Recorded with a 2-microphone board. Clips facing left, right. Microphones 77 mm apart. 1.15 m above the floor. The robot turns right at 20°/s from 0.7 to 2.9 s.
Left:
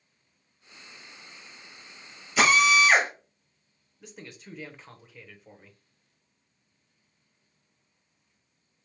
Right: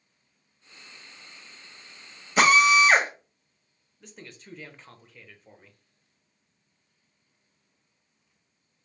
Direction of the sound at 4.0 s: 5° left (ahead or behind).